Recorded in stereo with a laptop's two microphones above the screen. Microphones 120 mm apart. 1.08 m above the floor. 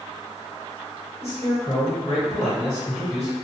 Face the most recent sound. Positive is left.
turn(degrees=55)  # may be behind; listen again after turning